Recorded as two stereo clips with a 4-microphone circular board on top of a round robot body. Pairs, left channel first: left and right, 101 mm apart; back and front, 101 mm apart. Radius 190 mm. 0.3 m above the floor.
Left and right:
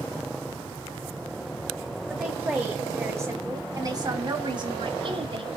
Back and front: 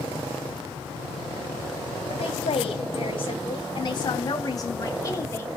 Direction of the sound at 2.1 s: 170° right.